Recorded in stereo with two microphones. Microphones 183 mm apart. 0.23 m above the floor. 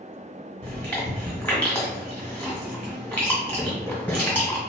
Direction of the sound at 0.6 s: 10° left (ahead or behind).